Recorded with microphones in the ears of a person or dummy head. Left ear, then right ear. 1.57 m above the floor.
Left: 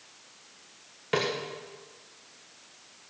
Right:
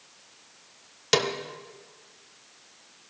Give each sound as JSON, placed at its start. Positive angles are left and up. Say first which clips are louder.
{"t": 1.1, "sound": "a snare drum", "louder": "right 4 dB", "side_deg": -85, "distance_m": 1.4}